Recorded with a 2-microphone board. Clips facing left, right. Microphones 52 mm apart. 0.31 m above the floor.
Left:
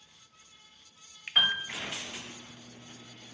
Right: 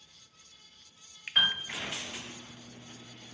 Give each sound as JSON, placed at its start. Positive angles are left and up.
{"t": 1.4, "sound": "a piano", "side_deg": 15, "distance_m": 1.0}